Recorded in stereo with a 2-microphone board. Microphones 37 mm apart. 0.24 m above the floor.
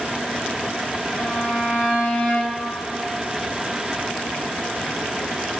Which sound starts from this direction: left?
A violin, at 1.1 s.